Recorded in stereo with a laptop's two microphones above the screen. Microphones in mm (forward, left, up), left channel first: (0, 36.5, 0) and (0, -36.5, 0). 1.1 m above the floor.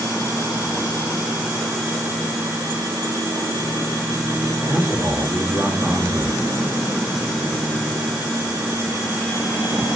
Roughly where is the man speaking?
Centre.